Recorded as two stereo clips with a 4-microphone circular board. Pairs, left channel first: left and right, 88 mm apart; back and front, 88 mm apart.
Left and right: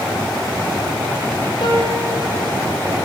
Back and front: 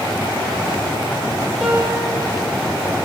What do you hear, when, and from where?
1.6 s a piano: 90° left, 4.5 m